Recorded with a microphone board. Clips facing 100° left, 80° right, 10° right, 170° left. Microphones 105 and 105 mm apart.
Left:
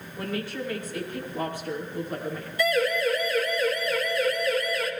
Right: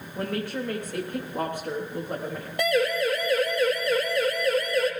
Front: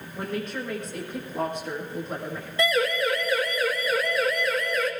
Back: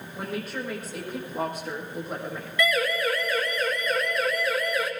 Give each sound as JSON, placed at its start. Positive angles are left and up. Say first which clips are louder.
{"t": 0.1, "sound": "a woman speaking", "louder": "right 2 dB, front 2 dB", "azimuth_deg": -105, "distance_m": 6.5}
{"t": 2.6, "sound": "a siren", "louder": "even, front 1 dB", "azimuth_deg": -65, "distance_m": 3.5}